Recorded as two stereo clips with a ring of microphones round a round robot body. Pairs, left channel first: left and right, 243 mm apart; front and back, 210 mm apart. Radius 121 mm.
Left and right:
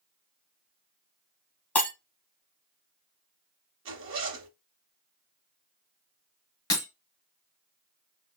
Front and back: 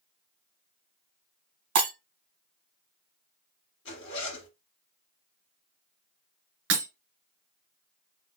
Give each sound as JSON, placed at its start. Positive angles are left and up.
{"t": 1.8, "sound": "breaking glass", "azimuth_deg": 175, "distance_m": 1.2}
{"t": 3.9, "sound": "a zipper", "azimuth_deg": -50, "distance_m": 1.0}
{"t": 6.7, "sound": "breaking glass", "azimuth_deg": 165, "distance_m": 1.4}